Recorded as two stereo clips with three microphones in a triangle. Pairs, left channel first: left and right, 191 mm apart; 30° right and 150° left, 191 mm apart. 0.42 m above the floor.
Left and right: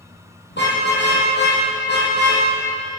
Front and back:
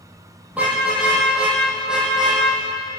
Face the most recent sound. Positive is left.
turn(degrees=65)